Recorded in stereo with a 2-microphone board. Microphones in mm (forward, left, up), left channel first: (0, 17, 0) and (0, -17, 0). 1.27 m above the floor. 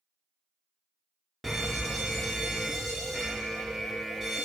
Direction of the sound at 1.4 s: Centre (ahead or behind).